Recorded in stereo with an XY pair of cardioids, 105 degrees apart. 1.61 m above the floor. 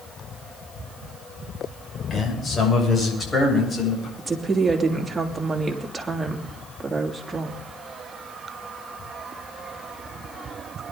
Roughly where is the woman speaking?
Ahead right.